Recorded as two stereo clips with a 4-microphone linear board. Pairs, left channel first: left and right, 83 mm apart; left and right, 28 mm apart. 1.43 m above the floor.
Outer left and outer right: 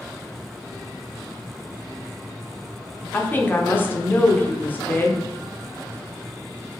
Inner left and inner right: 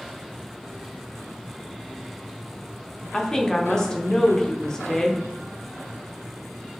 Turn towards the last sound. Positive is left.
turn(degrees=25)  # may be behind; listen again after turning